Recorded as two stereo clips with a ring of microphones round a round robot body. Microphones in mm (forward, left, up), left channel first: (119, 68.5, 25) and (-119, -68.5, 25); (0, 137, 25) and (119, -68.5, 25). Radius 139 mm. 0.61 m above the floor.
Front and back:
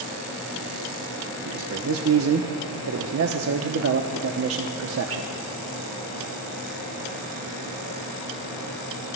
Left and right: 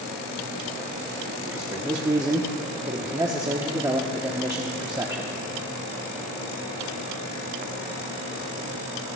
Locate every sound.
1.4 s a man speaking: 135° right, 0.8 m